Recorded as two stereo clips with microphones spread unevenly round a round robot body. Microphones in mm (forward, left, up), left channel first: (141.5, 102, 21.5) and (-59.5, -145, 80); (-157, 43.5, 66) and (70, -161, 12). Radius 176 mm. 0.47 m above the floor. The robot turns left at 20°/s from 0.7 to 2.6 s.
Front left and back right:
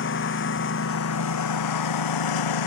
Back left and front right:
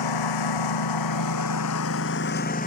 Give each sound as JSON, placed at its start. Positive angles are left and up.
{"t": 0.0, "sound": "a lawn mower", "azimuth_deg": 110}